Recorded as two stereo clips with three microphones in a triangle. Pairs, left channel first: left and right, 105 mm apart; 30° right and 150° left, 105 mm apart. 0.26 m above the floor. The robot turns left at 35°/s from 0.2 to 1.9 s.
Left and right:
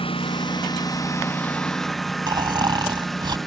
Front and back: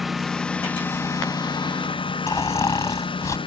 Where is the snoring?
75° right.